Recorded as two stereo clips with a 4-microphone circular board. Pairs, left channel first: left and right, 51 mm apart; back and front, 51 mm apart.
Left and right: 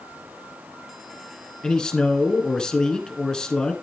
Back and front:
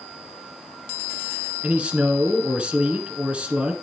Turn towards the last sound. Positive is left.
turn(degrees=35)